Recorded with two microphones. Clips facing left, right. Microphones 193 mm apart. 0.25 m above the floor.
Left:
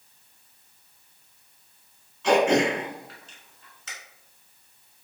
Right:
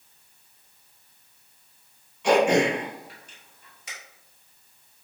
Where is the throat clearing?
15° right (ahead or behind), 1.3 m.